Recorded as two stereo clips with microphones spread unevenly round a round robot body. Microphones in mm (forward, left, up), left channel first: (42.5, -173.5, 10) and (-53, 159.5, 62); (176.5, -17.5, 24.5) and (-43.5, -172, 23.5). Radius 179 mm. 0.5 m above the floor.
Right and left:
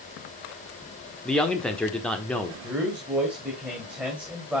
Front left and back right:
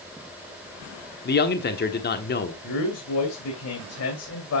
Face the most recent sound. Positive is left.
turn(degrees=15)